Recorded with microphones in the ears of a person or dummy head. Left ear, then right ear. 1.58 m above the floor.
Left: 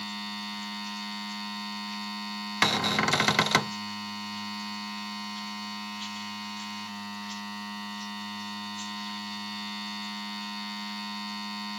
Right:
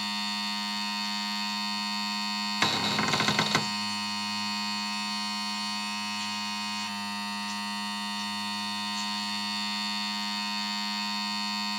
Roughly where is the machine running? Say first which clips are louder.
Right 5 dB; right.